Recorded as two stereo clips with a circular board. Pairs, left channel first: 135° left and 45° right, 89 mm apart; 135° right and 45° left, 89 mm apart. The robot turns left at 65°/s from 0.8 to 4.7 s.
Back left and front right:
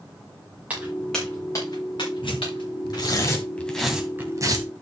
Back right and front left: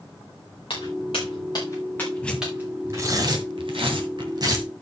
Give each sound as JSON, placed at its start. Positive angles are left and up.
{"t": 0.7, "sound": "footsteps", "azimuth_deg": -120, "distance_m": 5.5}
{"t": 2.2, "sound": "tearing paper", "azimuth_deg": 150, "distance_m": 2.0}